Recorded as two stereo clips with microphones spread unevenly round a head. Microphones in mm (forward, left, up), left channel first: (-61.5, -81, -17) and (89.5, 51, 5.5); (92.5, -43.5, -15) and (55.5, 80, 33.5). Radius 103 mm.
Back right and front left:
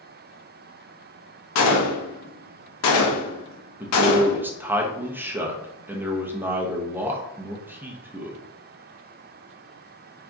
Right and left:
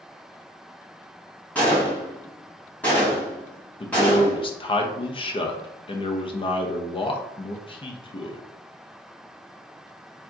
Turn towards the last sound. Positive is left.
turn(degrees=-40)